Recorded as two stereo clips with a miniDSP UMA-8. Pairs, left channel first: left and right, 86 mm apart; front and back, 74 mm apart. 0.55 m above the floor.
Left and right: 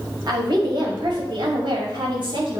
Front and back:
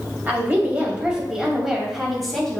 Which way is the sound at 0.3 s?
115° right.